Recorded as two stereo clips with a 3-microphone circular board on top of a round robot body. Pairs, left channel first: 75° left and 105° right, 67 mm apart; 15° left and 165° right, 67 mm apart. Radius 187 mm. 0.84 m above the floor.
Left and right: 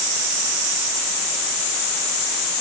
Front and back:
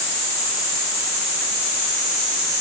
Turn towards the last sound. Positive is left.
No sound to turn to.